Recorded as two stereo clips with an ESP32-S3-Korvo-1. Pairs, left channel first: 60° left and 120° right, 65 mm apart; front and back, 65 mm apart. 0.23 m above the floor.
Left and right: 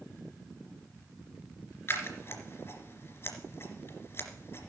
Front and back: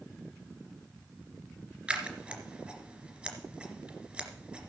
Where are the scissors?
110° left, 2 m.